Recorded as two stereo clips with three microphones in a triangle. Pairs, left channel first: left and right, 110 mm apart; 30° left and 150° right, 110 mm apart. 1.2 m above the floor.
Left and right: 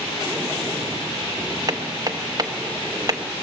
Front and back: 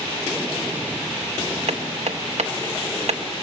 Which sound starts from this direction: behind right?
Hammering, at 1.7 s.